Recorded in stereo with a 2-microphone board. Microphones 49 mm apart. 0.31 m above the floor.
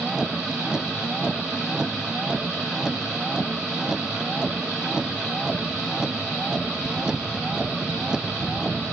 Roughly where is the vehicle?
Centre.